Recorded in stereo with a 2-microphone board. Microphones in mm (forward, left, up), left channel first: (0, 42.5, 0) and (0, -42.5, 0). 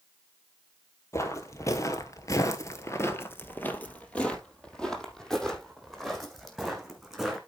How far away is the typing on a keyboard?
I don't hear typing on a keyboard.